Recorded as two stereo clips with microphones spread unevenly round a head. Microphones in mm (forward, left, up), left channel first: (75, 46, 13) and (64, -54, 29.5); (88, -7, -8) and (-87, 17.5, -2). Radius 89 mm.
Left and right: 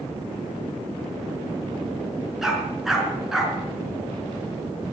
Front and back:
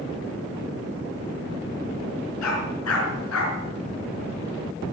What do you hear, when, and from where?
2.4 s a dog barking: 10° right, 5 m